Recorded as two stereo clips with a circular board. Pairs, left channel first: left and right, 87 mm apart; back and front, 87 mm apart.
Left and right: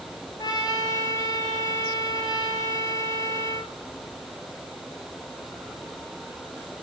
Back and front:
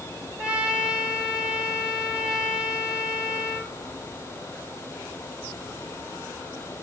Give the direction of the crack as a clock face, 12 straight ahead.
No crack in this recording.